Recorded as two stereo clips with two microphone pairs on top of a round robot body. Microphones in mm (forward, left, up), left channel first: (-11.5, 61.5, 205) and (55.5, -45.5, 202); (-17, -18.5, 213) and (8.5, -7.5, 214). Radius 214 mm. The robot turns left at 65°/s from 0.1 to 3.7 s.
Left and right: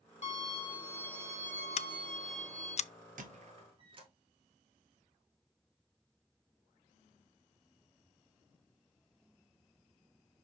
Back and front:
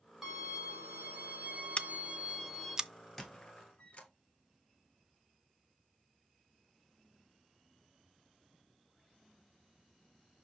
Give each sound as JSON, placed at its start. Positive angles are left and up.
{"t": 0.2, "sound": "a violin", "azimuth_deg": 100, "distance_m": 2.5}
{"t": 1.8, "sound": "scissors", "azimuth_deg": 155, "distance_m": 0.5}
{"t": 3.2, "sound": "a squeak", "azimuth_deg": -75, "distance_m": 1.0}